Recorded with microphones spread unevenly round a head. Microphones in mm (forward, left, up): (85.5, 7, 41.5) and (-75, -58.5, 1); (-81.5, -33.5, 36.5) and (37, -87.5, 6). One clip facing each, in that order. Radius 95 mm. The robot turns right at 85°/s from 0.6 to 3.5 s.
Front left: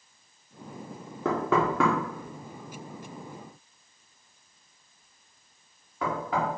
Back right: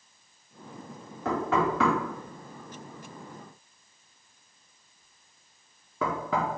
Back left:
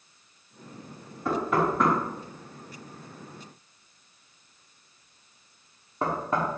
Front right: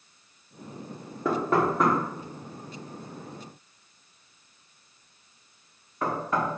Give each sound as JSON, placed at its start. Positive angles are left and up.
{"t": 1.2, "sound": "knocking", "azimuth_deg": 20, "distance_m": 1.6}